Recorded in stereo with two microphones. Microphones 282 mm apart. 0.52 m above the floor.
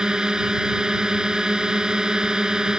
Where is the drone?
5° right (ahead or behind).